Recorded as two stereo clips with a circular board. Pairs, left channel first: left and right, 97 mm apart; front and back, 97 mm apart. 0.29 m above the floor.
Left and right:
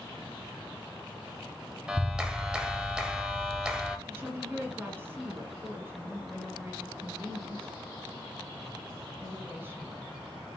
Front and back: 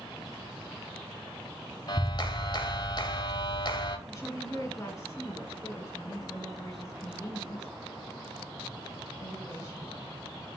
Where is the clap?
5° right, 1.0 m.